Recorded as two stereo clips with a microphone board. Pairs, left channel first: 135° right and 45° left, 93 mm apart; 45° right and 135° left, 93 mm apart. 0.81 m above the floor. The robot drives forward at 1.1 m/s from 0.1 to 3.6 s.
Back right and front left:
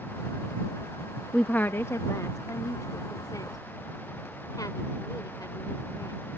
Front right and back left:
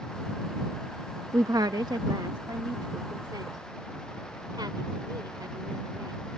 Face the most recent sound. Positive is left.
turn(degrees=175)